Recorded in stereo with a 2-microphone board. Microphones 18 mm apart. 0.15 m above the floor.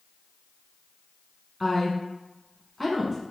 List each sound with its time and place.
1.6 s a woman speaking: 5° left (ahead or behind), 1.1 m